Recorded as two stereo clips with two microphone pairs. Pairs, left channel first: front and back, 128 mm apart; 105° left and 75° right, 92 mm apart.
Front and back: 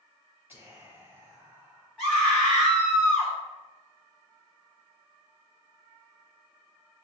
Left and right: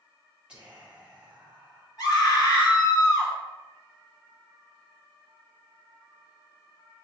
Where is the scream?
90° left, 1.9 m.